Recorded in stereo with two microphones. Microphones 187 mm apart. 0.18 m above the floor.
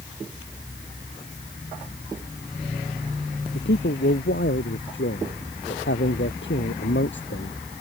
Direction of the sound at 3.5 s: 70° left (ahead or behind).